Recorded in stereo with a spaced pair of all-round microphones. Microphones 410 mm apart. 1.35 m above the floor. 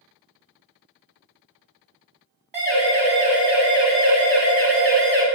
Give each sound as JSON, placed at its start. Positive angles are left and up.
{"t": 2.5, "sound": "a siren", "side_deg": -75, "distance_m": 7.5}